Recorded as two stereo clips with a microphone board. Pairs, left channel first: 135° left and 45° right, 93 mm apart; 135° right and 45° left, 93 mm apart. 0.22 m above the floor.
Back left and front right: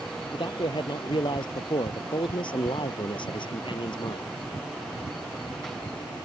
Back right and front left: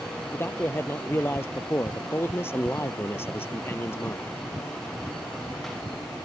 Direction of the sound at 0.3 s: 160° left.